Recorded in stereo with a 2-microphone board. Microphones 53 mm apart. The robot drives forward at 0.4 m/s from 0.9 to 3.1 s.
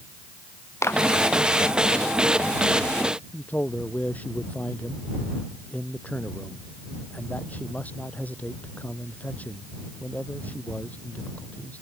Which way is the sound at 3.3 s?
30° left (ahead or behind).